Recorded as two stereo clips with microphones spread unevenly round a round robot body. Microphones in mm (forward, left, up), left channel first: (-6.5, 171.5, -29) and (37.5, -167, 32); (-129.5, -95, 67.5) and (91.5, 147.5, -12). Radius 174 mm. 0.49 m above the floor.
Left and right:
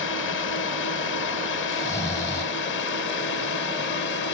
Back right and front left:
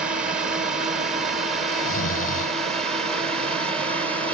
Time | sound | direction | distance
0.0 | a drone | 120° left | ?
1.7 | snoring | 175° left | ?